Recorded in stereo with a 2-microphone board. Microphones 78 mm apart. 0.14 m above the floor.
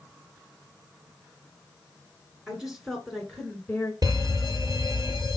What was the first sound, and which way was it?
A woman speaking, 10° right (ahead or behind).